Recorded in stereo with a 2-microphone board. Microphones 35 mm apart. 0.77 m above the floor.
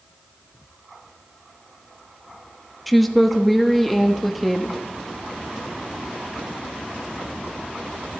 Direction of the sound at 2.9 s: Centre (ahead or behind).